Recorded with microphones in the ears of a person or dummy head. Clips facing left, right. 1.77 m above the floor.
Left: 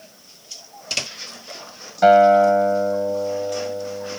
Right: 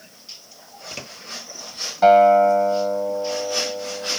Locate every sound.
2.0 s a guitar: 20° left (ahead or behind)